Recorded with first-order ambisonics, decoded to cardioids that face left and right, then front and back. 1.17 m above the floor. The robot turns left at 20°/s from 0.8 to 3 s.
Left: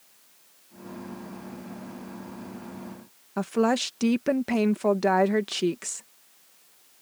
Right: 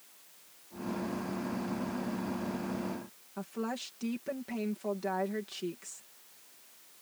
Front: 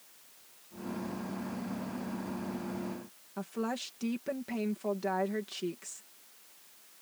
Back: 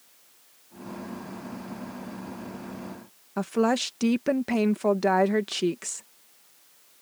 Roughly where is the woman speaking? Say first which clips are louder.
Left 14 dB, back 12 dB; behind left.